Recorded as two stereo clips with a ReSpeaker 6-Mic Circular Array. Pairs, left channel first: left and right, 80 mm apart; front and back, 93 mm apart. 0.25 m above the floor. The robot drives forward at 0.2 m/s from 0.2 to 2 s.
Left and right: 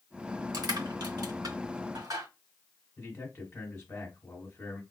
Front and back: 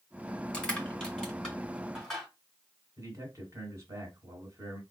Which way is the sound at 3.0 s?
150° left.